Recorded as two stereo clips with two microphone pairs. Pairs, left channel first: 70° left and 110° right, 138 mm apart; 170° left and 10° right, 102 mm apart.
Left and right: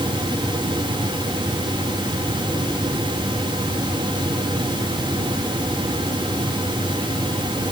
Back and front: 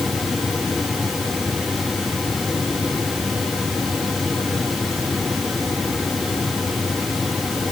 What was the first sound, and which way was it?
Only background noise.